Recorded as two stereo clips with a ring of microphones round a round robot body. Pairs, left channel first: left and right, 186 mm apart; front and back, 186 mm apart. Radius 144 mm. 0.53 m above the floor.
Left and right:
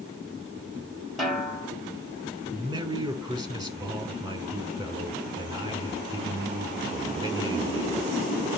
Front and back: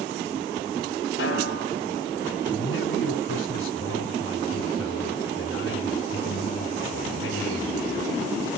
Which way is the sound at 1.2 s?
Straight ahead.